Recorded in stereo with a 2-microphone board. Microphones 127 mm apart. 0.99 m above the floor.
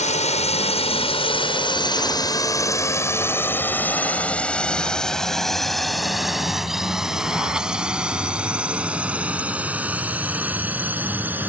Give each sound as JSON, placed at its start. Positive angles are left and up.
{"t": 0.0, "sound": "a drone", "side_deg": 65}